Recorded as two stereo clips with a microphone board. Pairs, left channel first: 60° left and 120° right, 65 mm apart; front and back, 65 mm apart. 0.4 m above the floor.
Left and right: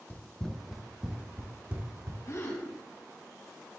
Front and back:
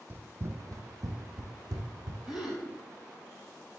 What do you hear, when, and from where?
0.1 s running footsteps: 120° left, 0.9 m; by 2.2 s 170° right, 1.6 m
2.3 s a gasp: 95° left, 3.5 m